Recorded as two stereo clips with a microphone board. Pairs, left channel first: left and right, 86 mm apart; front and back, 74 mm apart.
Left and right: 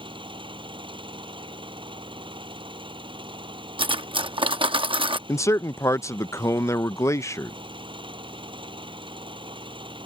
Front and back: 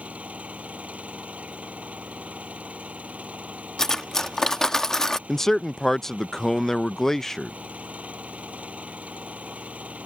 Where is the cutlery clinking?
85° right.